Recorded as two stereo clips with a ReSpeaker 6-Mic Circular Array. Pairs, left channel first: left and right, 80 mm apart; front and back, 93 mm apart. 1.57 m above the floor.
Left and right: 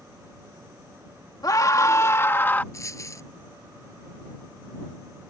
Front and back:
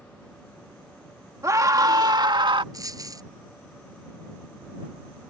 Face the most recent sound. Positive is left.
turn(degrees=135)